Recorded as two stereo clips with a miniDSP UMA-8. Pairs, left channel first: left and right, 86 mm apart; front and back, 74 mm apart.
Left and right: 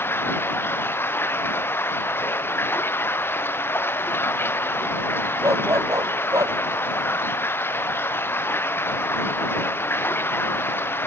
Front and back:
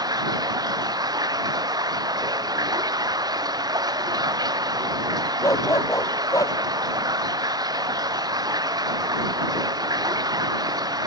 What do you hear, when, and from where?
0.0 s running water: 155° left
5.4 s a dog barking: 40° right